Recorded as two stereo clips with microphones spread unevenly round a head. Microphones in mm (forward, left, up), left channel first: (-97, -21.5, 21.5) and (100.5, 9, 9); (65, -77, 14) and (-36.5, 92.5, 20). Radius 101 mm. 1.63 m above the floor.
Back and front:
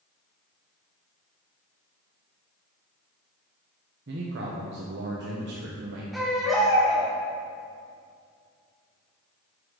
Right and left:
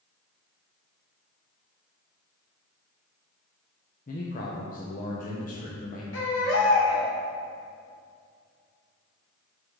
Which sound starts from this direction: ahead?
A man speaking, at 4.1 s.